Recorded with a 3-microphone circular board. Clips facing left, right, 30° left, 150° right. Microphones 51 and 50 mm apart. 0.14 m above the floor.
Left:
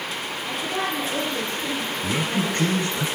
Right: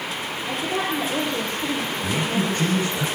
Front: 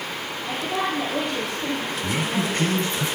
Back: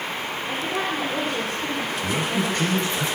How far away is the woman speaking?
About 3.5 m.